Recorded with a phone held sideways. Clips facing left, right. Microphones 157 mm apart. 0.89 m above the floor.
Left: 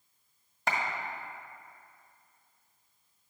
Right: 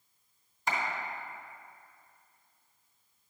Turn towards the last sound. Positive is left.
turn(degrees=65)  # may be behind; listen again after turning